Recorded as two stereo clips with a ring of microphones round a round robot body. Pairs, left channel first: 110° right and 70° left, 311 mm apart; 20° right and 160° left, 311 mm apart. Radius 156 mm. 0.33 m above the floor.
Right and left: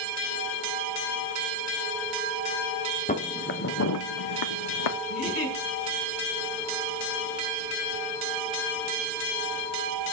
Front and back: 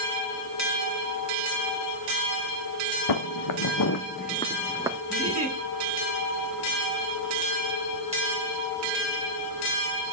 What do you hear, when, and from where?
3.1 s footsteps: 45° right, 1.7 m; by 5.0 s 130° right, 1.1 m
5.1 s a giggle: 105° right, 3.5 m